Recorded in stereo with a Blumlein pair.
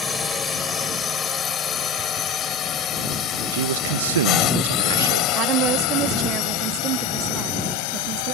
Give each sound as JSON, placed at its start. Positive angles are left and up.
{"t": 0.0, "sound": "a drone", "azimuth_deg": 15}
{"t": 3.5, "sound": "a man speaking", "azimuth_deg": -60}
{"t": 5.3, "sound": "a woman speaking", "azimuth_deg": -35}